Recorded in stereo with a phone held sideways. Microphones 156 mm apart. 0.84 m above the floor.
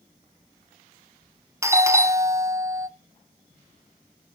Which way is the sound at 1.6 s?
20° right (ahead or behind).